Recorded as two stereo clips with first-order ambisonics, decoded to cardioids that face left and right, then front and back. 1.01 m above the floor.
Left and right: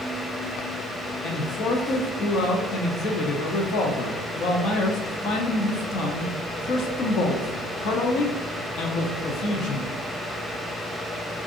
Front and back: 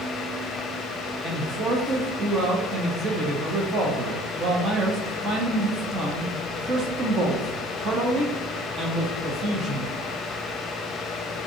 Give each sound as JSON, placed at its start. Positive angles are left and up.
{"t": 1.2, "sound": "a man speaking", "azimuth_deg": 115, "distance_m": 0.7}